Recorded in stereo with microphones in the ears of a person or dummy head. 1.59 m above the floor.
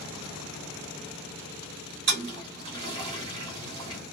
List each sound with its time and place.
2.1 s a toilet flushing: 50° right (ahead or behind), 1.7 m